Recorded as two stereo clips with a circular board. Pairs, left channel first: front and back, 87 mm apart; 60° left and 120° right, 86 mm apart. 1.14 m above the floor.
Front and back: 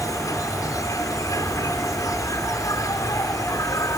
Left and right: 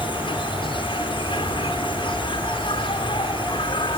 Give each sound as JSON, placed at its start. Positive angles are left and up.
{"t": 0.0, "sound": "an insect", "azimuth_deg": 50}